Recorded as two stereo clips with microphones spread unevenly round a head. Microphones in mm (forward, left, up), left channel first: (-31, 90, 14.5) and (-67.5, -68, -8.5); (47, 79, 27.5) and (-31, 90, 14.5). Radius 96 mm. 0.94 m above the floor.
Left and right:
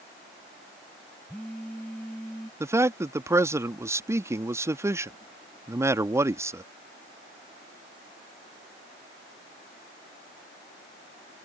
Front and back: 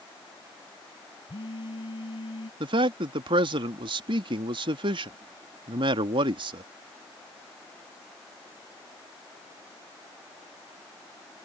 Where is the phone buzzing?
5° right.